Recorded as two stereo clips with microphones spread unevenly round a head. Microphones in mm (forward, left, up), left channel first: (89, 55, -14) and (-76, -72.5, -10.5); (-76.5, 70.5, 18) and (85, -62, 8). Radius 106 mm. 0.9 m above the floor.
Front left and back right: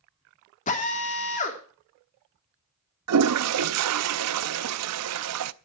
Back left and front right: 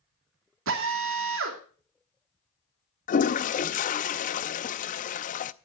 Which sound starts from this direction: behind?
A toilet flushing, at 3.1 s.